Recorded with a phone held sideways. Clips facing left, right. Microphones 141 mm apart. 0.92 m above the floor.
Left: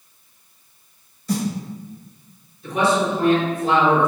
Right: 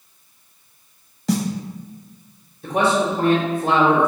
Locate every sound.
1.3 s a snare drum: 85° right, 0.7 m
2.6 s a man speaking: 45° right (ahead or behind), 1.2 m